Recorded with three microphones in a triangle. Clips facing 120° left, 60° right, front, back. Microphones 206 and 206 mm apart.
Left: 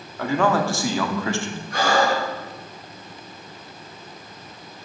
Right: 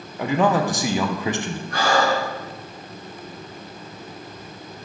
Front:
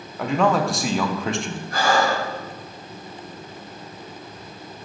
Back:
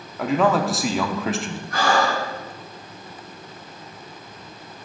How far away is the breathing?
About 3 m.